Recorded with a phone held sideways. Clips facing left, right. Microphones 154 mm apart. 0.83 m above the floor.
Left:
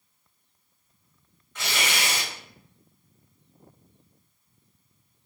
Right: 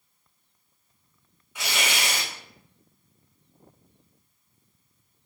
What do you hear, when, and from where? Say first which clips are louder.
1.6 s tearing paper: even; 10° right (ahead or behind), 1.6 m